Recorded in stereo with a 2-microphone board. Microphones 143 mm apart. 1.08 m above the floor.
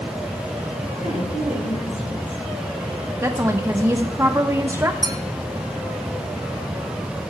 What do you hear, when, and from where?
1.0 s a woman speaking: 60° left (ahead or behind), 7 m
3.2 s a woman speaking: 20° right (ahead or behind), 0.9 m
5.0 s a clink: 25° right (ahead or behind), 0.8 m